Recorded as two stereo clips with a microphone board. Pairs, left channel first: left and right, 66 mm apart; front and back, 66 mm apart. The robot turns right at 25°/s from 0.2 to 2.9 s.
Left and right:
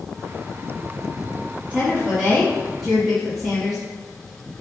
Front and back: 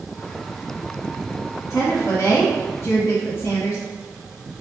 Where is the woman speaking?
30° right, 1.5 m; by 3.9 s straight ahead, 1.5 m.